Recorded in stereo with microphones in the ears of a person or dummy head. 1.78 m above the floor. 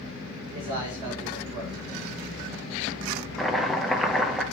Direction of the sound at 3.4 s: Centre (ahead or behind).